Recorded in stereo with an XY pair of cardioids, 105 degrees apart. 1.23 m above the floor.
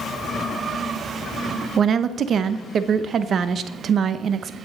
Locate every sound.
1.8 s a woman speaking: 50° right, 0.7 m